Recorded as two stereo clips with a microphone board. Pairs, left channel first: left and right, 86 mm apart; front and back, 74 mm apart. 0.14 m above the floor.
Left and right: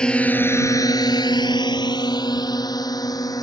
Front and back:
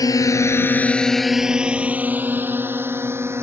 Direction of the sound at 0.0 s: 10° left.